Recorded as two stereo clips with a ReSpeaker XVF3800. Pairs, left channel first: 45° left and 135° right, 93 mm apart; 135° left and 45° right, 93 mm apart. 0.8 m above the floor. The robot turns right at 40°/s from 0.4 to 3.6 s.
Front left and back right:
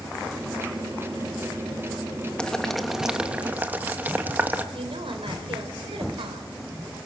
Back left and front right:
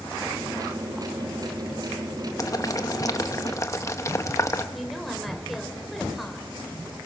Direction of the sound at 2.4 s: 120° left.